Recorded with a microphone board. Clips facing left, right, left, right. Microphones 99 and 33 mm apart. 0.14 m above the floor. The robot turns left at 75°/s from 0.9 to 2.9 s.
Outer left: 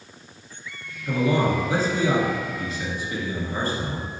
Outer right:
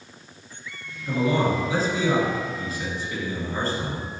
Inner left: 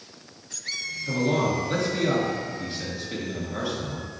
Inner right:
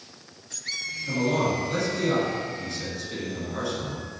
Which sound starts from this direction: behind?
A man speaking, at 1.1 s.